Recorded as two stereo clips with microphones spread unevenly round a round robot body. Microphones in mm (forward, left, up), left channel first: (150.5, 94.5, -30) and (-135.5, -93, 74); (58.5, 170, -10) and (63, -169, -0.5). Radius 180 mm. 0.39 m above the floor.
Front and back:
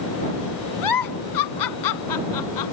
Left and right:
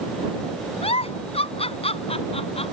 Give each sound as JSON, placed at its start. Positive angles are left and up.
{"t": 0.8, "sound": "a giggle", "azimuth_deg": 20}